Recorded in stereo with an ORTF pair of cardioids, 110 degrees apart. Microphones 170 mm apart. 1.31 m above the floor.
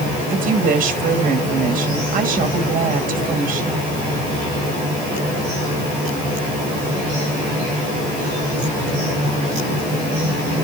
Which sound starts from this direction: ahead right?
A woman speaking, at 0.3 s.